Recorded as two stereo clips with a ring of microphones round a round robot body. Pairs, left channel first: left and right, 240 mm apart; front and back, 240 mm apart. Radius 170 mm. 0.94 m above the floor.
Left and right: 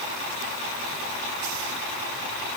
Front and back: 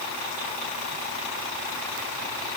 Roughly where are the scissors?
No scissors in this recording.